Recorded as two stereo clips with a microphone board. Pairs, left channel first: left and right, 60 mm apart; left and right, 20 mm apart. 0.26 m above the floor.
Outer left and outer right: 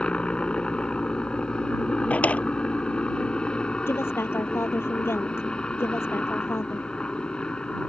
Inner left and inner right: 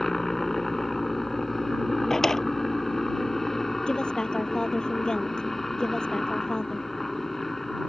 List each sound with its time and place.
0.0 s a helicopter: 15° left (ahead or behind)
2.1 s a drawer: 25° left (ahead or behind)
3.9 s a woman speaking: 45° left (ahead or behind)